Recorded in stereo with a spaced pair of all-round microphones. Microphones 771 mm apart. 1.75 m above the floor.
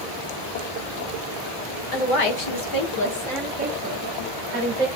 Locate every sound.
1.9 s a woman speaking: 55° left (ahead or behind), 0.9 m; by 4.9 s 55° right (ahead or behind), 0.9 m